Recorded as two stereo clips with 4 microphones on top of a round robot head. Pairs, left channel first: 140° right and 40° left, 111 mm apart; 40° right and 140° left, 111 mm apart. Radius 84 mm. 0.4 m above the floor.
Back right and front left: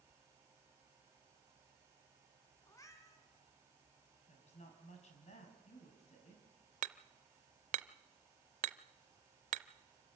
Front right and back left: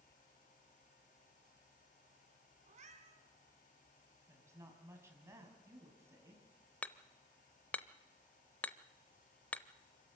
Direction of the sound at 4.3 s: 155° right.